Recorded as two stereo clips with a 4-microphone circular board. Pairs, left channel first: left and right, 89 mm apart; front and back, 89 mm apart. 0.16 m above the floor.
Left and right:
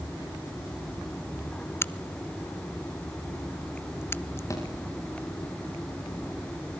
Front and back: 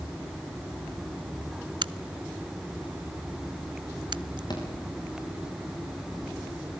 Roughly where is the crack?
Behind left.